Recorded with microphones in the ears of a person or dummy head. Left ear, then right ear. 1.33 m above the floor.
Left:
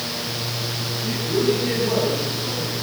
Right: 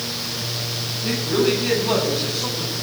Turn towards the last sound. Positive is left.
turn(degrees=-55)  # may be behind; listen again after turning